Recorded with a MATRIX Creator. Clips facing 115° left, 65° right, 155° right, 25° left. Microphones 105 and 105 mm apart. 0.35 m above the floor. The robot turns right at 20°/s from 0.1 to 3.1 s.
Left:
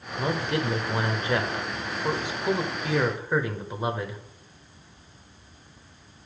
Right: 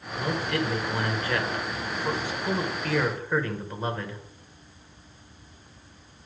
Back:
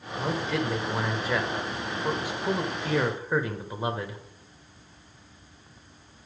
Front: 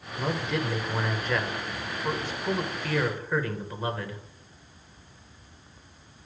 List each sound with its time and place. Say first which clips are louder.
0.2 s a man speaking: left 1 dB, back 1 dB; 110° left, 0.9 m; by 4.2 s 170° left, 0.9 m